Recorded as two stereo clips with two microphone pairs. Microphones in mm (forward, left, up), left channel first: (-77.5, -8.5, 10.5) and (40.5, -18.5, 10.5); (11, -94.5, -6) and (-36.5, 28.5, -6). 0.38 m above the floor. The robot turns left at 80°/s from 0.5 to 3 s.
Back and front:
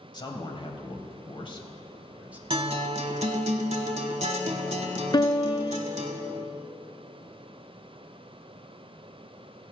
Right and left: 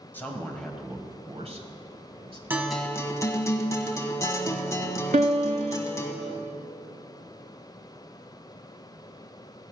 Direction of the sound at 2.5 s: 35° left.